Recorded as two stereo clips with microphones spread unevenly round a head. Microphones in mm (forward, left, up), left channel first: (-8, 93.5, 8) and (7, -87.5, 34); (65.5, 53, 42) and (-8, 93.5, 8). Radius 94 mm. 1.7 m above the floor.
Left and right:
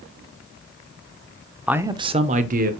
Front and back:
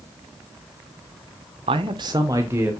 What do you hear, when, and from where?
1.7 s a man speaking: 170° right, 0.5 m; by 2.7 s 130° right, 0.9 m